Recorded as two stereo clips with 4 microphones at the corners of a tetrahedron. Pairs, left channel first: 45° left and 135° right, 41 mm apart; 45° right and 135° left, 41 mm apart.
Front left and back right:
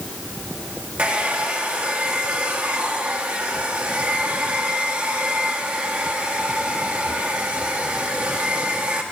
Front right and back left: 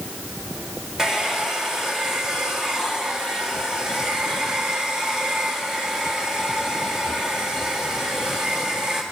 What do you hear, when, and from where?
1.0 s a hair dryer: 160° right, 1.3 m